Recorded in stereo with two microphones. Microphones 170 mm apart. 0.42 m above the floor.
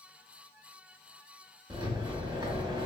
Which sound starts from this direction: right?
A rattle, at 1.7 s.